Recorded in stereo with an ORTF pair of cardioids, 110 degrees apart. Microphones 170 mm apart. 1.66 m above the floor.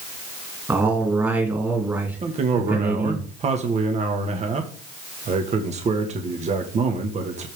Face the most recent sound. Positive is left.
turn(degrees=-40)